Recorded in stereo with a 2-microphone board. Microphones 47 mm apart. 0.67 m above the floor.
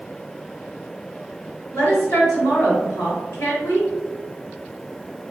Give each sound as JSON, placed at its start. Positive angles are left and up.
{"t": 1.7, "sound": "a woman speaking", "side_deg": 65, "distance_m": 1.8}